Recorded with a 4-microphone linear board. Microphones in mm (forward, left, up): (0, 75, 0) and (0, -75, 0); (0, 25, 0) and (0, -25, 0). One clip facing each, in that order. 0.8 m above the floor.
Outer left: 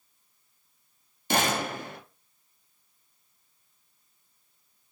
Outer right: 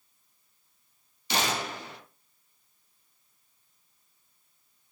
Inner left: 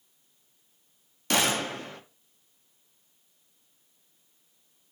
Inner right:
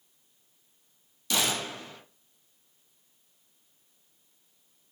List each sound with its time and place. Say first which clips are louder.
1.3 s a gunshot: outer left 4 dB, inner left 4 dB; 50° left (ahead or behind), 0.5 m